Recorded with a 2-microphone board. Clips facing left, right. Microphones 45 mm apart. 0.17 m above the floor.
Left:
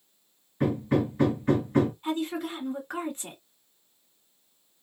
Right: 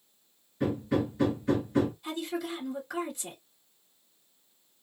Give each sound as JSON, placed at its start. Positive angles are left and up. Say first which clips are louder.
{"t": 0.6, "sound": "hammering", "louder": "left 3 dB", "side_deg": 45, "distance_m": 1.8}
{"t": 2.0, "sound": "a woman speaking", "louder": "left 4 dB", "side_deg": 40, "distance_m": 1.4}